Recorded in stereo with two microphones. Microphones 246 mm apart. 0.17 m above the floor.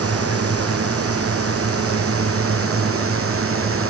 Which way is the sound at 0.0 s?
70° right (ahead or behind).